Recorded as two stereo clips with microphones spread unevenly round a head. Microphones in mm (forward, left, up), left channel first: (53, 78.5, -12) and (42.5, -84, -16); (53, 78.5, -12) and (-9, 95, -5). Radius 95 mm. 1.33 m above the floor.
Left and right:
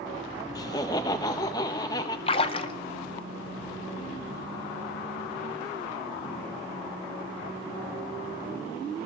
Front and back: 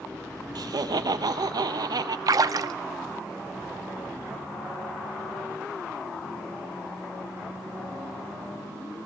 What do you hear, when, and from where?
0.6 s laughter: 155° left, 0.9 m
2.3 s a splash: 145° left, 0.6 m